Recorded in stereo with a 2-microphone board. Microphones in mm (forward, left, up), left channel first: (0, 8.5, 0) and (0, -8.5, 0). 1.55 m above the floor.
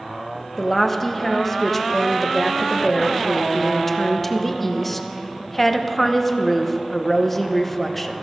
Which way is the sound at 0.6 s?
10° left (ahead or behind).